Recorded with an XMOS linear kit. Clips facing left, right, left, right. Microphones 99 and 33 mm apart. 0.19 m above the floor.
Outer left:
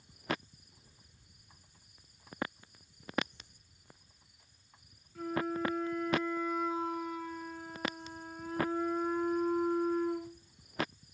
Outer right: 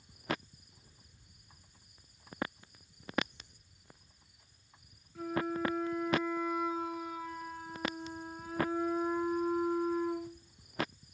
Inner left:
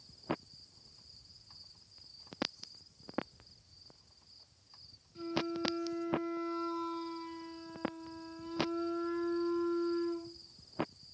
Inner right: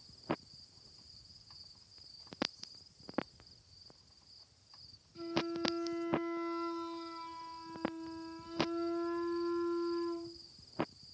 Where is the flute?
5° right (ahead or behind), 2.5 m.